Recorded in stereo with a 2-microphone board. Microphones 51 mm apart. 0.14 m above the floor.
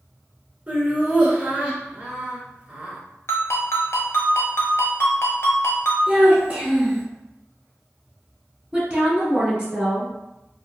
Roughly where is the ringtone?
Left.